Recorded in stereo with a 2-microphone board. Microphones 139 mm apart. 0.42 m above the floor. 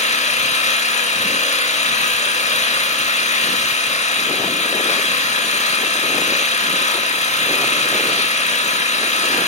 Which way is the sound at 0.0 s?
55° left (ahead or behind).